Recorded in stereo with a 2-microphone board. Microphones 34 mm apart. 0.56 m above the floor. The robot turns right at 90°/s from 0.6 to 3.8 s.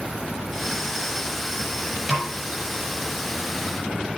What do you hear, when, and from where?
2.1 s a snare drum: 5° right (ahead or behind), 7.5 m; by 2.3 s 30° right (ahead or behind), 7.5 m